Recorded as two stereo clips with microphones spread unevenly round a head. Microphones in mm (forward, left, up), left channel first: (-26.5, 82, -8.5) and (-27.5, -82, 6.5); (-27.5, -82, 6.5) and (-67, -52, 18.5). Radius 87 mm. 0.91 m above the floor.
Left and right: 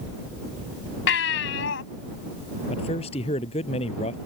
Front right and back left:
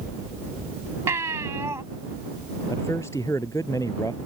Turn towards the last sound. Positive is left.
turn(degrees=30)